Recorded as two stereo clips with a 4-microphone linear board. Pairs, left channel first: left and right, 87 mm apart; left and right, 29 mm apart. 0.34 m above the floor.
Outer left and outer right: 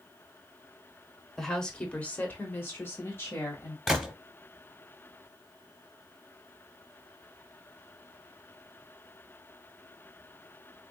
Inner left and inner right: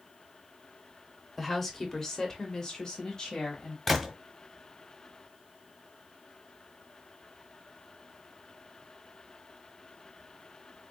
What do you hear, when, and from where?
1.4 s a woman speaking: 5° left (ahead or behind), 1.0 m; by 3.8 s 30° left (ahead or behind), 1.5 m
3.9 s a gunshot: 5° right (ahead or behind), 0.8 m